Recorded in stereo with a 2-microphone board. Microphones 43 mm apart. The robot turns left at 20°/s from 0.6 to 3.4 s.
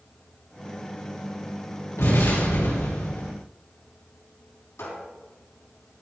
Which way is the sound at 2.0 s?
80° left.